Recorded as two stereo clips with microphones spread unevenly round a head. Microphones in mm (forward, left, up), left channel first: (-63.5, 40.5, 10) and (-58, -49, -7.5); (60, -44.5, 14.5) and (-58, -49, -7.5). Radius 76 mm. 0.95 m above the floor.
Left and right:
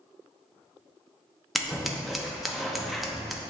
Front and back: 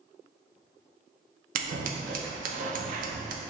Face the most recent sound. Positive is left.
turn(degrees=180)